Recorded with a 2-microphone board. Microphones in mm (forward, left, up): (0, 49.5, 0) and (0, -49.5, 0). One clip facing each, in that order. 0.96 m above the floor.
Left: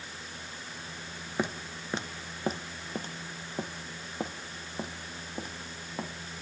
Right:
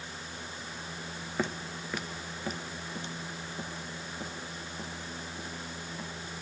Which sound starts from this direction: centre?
Footsteps, at 1.4 s.